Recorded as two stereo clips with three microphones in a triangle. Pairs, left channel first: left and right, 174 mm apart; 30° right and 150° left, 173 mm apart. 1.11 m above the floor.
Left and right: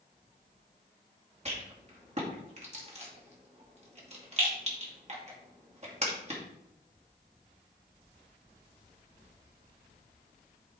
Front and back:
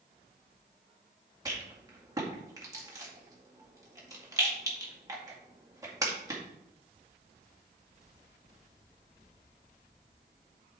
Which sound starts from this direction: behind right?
A rattle, at 1.4 s.